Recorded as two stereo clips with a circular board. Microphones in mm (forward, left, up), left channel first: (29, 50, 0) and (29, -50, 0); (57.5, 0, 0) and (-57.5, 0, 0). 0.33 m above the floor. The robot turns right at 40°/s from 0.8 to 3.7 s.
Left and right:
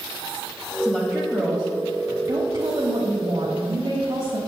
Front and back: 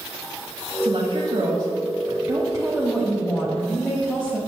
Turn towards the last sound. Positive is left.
turn(degrees=-75)